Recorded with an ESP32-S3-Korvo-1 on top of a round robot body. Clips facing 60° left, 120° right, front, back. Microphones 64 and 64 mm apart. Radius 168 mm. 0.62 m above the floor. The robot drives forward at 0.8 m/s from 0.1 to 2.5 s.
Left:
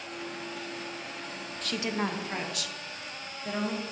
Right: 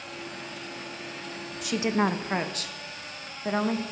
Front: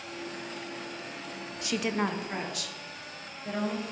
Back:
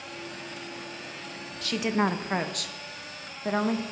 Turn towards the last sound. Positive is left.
turn(degrees=-165)